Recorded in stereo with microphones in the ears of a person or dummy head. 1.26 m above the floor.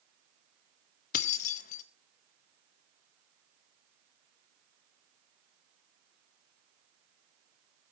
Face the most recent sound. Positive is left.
turn(degrees=45)  # may be behind; listen again after turning